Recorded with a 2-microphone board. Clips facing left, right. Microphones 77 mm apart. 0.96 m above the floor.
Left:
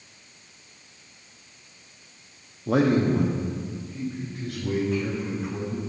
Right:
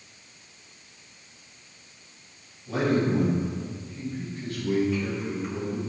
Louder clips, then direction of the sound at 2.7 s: Left 3 dB; 70° left (ahead or behind).